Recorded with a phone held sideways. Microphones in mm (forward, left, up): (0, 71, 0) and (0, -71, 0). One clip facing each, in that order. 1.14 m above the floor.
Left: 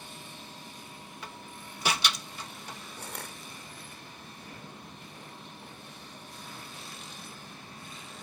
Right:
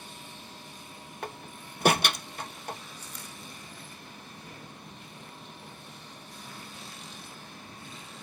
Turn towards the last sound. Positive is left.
turn(degrees=70)  # may be behind; listen again after turning